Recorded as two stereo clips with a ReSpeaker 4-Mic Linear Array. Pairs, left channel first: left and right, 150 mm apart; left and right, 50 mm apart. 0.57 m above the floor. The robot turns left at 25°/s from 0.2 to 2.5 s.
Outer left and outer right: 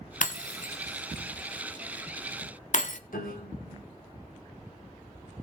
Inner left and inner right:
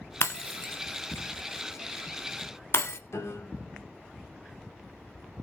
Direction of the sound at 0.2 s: 60° left (ahead or behind).